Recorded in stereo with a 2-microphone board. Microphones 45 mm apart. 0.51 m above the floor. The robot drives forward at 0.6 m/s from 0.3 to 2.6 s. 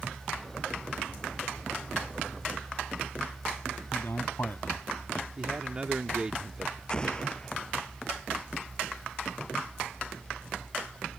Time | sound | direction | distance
3.9 | a man speaking | 55° left (ahead or behind) | ?
5.4 | a man speaking | 25° right (ahead or behind) | ?
6.9 | an explosion | 20° left (ahead or behind) | ?